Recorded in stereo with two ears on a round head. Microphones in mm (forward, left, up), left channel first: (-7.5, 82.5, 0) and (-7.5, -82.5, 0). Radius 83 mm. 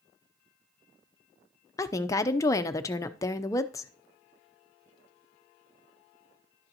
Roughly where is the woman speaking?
Centre.